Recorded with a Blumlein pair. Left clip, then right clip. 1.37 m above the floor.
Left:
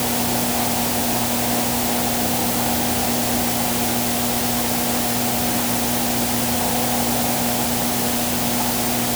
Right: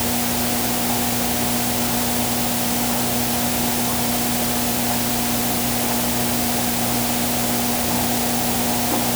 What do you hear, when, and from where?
Only background noise.